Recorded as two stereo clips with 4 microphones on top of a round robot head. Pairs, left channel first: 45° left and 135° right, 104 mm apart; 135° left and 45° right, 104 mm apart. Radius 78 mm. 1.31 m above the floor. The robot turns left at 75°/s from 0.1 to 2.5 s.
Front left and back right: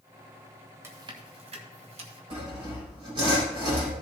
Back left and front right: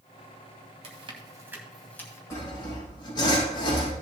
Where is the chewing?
65° right, 1.9 m; by 2.2 s 170° right, 1.9 m.